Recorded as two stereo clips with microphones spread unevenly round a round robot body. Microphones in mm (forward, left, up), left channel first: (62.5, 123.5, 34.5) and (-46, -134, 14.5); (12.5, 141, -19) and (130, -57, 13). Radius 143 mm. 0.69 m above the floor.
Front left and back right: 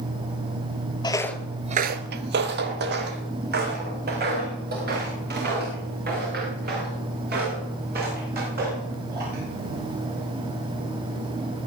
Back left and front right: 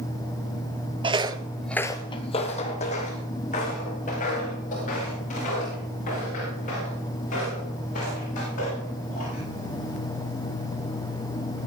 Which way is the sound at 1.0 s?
Straight ahead.